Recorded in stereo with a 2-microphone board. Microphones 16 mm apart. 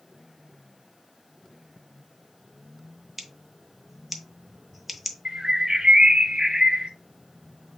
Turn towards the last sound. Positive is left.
turn(degrees=-60)  # may be behind; listen again after turning